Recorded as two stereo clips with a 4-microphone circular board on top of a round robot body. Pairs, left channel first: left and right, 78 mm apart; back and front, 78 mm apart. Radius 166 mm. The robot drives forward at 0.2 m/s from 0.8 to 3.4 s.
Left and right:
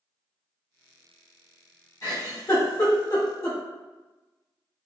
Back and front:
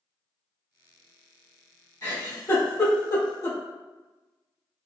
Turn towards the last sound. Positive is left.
turn(degrees=135)